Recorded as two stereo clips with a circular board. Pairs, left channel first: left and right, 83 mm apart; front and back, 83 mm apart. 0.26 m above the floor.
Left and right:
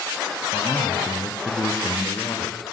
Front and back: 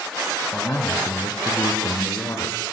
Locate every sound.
0.5 s a man speaking: 35° left, 4 m